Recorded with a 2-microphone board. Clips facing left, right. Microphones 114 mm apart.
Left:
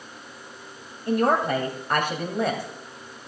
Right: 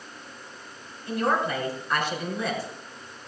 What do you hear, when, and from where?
1.1 s a woman speaking: 55° left (ahead or behind), 2 m